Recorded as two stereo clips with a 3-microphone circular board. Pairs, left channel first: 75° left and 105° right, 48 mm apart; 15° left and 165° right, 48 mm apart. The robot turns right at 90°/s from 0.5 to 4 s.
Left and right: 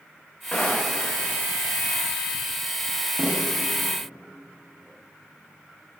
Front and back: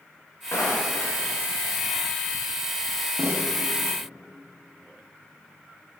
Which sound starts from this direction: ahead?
Footsteps, at 0.5 s.